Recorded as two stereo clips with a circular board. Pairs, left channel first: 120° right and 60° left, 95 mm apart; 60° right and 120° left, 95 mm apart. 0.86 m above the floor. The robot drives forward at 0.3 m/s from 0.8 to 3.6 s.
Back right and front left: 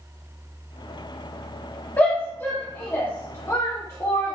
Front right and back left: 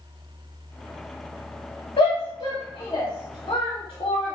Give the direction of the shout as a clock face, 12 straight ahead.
2 o'clock.